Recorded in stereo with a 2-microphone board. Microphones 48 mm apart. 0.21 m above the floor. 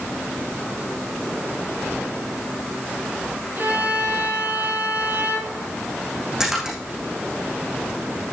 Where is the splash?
10° right (ahead or behind), 5 m.